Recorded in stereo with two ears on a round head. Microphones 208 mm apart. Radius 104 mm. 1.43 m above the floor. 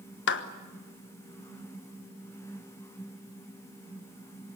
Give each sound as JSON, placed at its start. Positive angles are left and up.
{"t": 0.3, "sound": "a clap", "side_deg": 55, "distance_m": 1.3}